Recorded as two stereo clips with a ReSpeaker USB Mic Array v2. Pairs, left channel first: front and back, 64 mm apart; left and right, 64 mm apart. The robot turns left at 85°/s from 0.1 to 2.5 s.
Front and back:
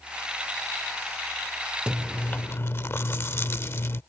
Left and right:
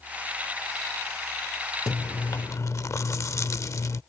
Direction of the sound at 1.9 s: 105° left.